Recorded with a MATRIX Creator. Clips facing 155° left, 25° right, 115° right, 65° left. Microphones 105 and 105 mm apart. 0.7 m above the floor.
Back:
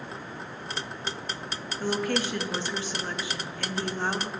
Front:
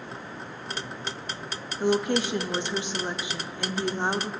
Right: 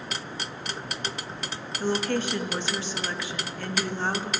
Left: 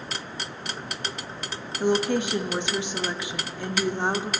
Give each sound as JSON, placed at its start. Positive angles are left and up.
{"t": 1.8, "sound": "a woman speaking", "azimuth_deg": 20, "distance_m": 0.5}